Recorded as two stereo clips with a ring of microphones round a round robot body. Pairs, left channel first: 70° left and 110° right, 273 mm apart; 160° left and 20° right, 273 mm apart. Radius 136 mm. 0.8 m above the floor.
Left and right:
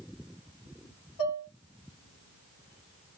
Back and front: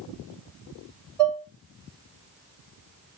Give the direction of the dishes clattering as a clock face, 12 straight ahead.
10 o'clock.